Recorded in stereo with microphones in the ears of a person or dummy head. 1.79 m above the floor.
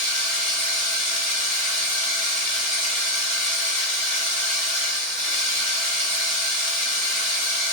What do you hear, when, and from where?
0.0 s a machine running: 5° left (ahead or behind), 1.8 m